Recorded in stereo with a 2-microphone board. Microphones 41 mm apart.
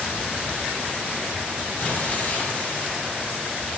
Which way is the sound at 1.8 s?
45° left (ahead or behind).